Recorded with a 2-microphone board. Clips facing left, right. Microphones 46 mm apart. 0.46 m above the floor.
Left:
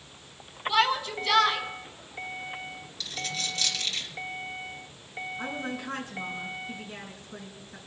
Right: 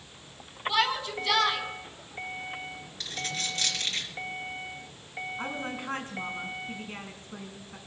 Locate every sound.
0.7 s a shout: centre (ahead or behind), 4.5 m
3.0 s a dropped coin: 40° right (ahead or behind), 3.5 m
5.4 s a woman speaking: 45° right (ahead or behind), 5 m